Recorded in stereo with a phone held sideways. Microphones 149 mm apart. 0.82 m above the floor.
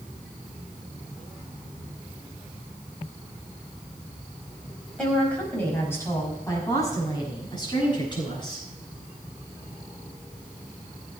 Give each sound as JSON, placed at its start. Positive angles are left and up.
{"t": 5.0, "sound": "a woman speaking", "side_deg": 5, "distance_m": 4.5}